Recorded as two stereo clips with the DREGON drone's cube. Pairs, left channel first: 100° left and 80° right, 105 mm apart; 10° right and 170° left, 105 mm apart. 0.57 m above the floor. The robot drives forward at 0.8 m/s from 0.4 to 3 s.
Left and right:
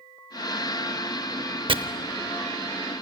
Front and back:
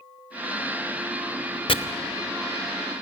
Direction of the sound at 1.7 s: 45° right.